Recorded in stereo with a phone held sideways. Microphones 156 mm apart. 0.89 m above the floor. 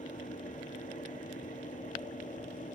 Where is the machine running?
55° left (ahead or behind).